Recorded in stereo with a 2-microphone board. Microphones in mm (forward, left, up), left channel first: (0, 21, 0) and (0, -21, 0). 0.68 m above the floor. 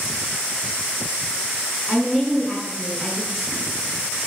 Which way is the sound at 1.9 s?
5° right (ahead or behind).